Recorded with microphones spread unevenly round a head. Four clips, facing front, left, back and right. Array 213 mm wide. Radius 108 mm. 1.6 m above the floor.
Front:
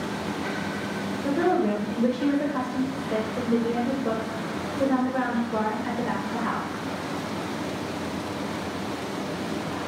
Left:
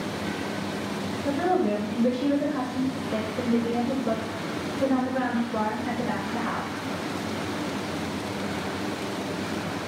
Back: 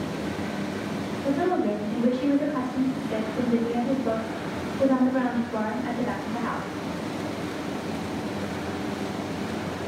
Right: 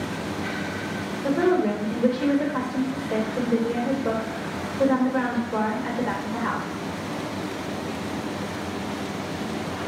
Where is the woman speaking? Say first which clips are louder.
Right 3 dB, front 1 dB; 45° right, 1.8 m.